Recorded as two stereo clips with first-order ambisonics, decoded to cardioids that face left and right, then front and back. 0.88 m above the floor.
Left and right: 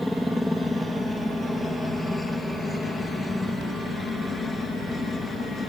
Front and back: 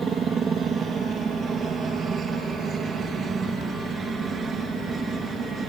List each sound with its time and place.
0.0 s a helicopter: 175° left; by 5.7 s 140° left